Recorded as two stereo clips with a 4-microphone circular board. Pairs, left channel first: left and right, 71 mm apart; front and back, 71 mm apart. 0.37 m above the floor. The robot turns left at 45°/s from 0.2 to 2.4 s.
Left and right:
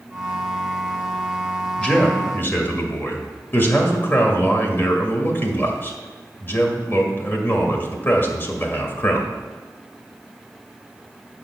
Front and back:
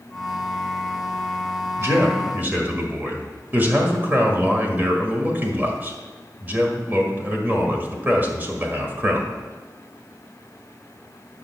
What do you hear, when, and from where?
1.8 s a man speaking: 160° left, 1.6 m; by 9.3 s 130° left, 1.6 m